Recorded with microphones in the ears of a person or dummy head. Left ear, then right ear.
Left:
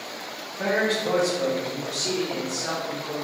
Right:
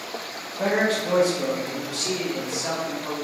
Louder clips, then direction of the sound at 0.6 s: Right 1 dB; 10° right (ahead or behind).